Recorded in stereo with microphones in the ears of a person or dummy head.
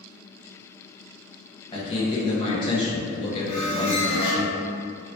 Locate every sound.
1.7 s a man speaking: 35° left (ahead or behind), 1.1 m
3.5 s a squeak: 10° left (ahead or behind), 1.3 m